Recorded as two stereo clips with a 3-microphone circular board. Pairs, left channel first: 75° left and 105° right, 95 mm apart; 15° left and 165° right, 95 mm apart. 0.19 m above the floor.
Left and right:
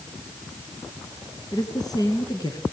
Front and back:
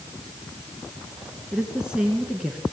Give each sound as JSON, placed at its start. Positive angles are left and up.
{"t": 1.5, "sound": "a woman speaking", "azimuth_deg": 115, "distance_m": 3.0}